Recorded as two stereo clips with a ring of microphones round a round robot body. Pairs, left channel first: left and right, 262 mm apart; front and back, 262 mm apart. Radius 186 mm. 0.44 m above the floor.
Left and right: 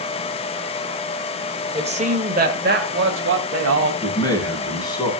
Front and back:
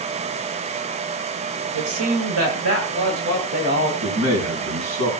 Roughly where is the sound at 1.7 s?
Behind right.